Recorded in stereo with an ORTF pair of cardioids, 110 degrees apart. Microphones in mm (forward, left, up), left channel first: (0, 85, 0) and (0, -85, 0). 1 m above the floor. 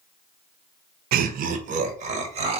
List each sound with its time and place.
1.1 s laughter: 70° right, 0.6 m; by 2.6 s 40° right, 1.4 m